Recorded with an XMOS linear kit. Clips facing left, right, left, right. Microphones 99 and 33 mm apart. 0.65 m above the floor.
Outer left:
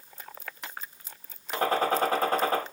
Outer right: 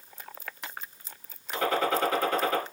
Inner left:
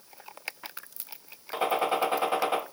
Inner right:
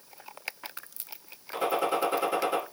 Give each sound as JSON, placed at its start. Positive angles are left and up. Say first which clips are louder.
{"t": 1.5, "sound": "a gunshot", "louder": "outer left 1 dB, inner left 1 dB", "side_deg": 35, "distance_m": 1.2}